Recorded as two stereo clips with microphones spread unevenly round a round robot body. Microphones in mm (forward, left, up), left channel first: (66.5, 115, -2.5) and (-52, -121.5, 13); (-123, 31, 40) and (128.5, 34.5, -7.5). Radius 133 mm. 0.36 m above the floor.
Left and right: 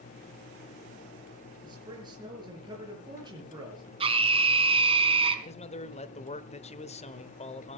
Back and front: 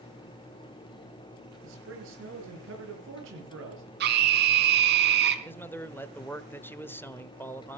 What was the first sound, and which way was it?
A man speaking, 40° right.